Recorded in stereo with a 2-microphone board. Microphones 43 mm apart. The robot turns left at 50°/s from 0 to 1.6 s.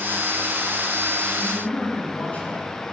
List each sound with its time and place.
1.4 s a man speaking: 30° left (ahead or behind), 2 m; by 2.8 s 35° left (ahead or behind), 2 m